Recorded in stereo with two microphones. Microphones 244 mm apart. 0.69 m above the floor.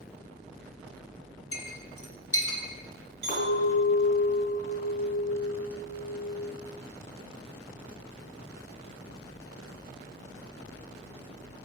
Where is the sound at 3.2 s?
45° left (ahead or behind), 3.5 m.